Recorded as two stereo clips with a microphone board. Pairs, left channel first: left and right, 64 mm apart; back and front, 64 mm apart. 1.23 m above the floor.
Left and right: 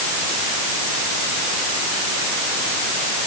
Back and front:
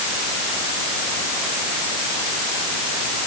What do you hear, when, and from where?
Only background noise.